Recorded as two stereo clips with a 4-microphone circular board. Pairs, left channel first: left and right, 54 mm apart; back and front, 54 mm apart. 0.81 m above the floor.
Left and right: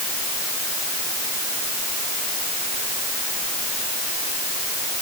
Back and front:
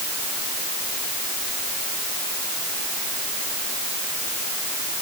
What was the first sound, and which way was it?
Only background noise.